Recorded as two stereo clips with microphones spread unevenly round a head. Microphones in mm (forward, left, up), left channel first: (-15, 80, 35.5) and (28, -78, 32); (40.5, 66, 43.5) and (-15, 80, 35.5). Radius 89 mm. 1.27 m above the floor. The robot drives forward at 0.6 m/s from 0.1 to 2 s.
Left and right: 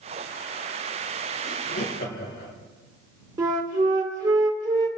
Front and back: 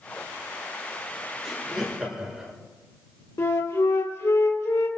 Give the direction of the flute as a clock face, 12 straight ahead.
12 o'clock.